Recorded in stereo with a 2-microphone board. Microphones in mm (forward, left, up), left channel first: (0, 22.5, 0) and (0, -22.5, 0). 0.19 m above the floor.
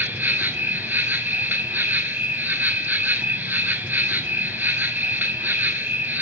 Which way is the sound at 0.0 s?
45° right (ahead or behind).